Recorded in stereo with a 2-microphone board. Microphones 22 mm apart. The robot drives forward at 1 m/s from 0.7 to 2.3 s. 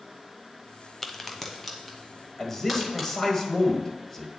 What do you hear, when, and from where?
1.0 s a crack: 15° left (ahead or behind), 0.5 m; by 3.1 s 5° left (ahead or behind), 1.8 m
2.4 s a man speaking: 25° left (ahead or behind), 1.0 m